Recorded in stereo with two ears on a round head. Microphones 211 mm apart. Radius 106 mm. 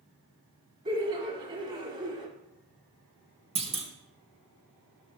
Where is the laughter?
35° right (ahead or behind), 1.6 m.